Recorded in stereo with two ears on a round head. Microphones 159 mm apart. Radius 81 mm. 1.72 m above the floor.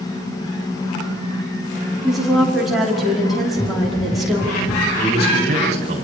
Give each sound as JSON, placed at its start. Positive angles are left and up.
{"t": 2.0, "sound": "a woman speaking", "side_deg": 0, "distance_m": 4.5}
{"t": 3.5, "sound": "running footsteps", "side_deg": 30, "distance_m": 3.0}
{"t": 5.0, "sound": "a man speaking", "side_deg": -40, "distance_m": 9.0}